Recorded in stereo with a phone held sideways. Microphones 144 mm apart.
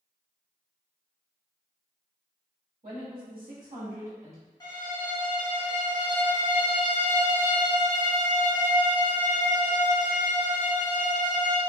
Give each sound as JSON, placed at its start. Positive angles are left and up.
{"t": 2.8, "sound": "a woman speaking", "side_deg": -70, "distance_m": 1.5}
{"t": 4.6, "sound": "a violin", "side_deg": 25, "distance_m": 1.6}